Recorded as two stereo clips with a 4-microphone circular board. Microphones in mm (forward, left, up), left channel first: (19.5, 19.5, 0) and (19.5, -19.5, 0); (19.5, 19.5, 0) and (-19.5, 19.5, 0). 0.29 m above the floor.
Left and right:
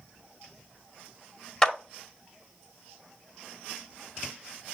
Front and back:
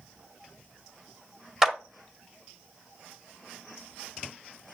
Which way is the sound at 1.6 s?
125° left.